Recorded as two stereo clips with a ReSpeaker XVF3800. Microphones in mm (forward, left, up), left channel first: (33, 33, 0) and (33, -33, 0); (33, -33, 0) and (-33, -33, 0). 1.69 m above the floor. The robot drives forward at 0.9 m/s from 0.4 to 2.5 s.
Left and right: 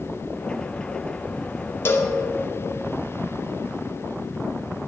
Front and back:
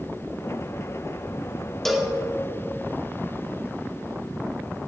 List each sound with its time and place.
1.9 s a cowbell: 80° left, 0.7 m; by 2.1 s 115° left, 0.7 m